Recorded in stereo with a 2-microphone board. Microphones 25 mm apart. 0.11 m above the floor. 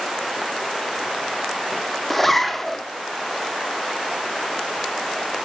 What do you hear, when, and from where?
2.1 s a zipper: 10° left (ahead or behind), 1.1 m